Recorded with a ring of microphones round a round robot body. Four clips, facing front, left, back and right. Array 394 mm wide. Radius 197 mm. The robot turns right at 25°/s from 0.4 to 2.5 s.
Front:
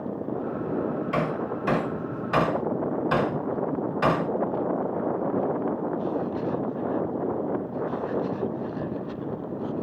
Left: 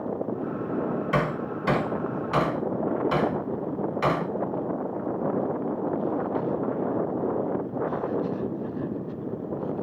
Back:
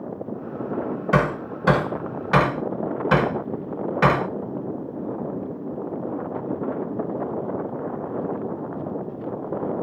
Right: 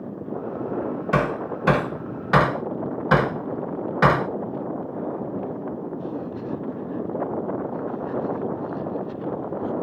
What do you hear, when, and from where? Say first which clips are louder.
1.1 s hammering: right 3 dB, back 4 dB; 160° right, 1.8 m; by 4.3 s 125° right, 1.8 m